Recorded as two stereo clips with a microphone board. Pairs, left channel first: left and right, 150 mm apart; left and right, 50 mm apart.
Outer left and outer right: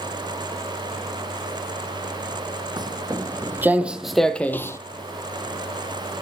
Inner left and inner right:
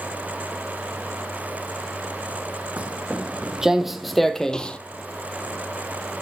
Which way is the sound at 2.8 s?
30° right (ahead or behind).